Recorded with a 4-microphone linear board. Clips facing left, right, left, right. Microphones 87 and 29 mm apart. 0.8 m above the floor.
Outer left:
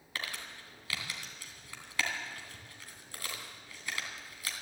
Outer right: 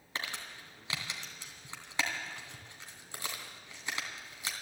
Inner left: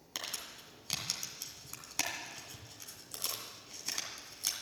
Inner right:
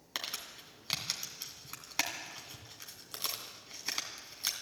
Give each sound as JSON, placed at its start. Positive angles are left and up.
{"t": 0.1, "sound": "crumpling", "side_deg": -25, "distance_m": 2.5}